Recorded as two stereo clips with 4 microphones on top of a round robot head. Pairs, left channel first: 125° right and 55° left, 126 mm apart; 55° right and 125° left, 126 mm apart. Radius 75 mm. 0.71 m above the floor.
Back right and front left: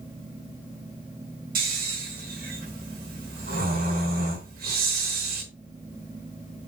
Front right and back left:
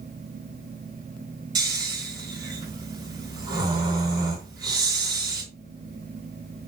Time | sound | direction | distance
1.6 | snoring | 65° left | 3.5 m